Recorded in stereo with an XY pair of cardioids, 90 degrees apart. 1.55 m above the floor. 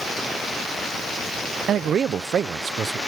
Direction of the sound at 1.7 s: 65° right.